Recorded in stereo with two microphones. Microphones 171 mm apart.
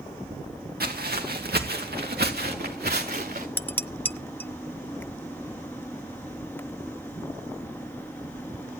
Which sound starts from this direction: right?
Footsteps, at 0.8 s.